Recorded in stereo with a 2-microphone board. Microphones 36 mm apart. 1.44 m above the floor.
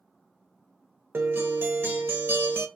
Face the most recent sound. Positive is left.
turn(degrees=-80)